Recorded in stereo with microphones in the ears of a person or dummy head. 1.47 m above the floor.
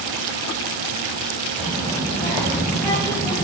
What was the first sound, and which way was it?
A child speaking, 20° left (ahead or behind).